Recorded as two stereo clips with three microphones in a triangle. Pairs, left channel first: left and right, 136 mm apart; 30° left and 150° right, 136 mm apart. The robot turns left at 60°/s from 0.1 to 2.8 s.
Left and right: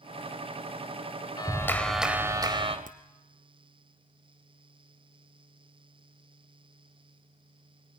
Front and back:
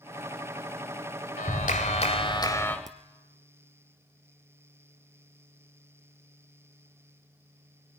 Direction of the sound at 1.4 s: 35° left.